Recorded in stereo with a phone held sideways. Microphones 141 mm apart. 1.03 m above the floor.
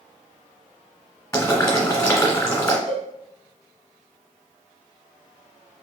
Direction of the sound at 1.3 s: 15° left (ahead or behind).